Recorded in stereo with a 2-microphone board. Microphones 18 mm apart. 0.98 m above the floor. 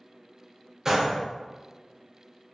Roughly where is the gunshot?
Right.